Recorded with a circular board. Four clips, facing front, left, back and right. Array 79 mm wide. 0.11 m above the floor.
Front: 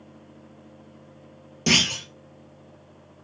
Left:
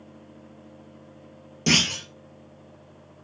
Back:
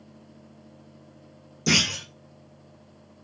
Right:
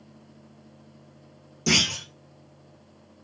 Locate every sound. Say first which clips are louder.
1.7 s a clunk: left 2 dB, front 1 dB; 30° left, 1.0 m